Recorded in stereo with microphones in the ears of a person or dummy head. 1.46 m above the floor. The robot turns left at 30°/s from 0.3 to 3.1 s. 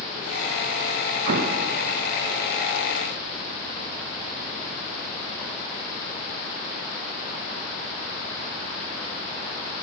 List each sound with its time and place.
1.3 s an explosion: 50° right (ahead or behind), 0.8 m; by 1.7 s 40° right (ahead or behind), 0.8 m